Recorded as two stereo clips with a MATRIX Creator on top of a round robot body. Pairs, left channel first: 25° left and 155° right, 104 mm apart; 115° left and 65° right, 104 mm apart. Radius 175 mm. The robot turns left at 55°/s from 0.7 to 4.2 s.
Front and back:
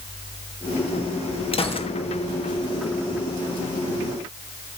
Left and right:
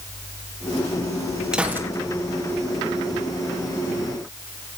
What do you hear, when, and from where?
1.5 s a gunshot: 15° left, 1.8 m; by 1.9 s 5° right, 1.8 m